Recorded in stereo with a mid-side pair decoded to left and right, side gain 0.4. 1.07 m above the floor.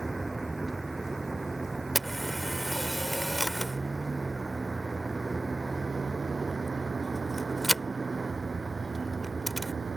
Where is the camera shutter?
5° right.